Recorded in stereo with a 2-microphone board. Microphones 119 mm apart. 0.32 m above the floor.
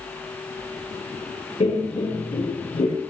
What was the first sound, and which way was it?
Laughter, 60° left (ahead or behind).